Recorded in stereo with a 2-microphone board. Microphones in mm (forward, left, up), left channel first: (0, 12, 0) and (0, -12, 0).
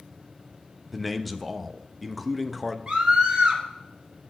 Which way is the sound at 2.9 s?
40° right (ahead or behind).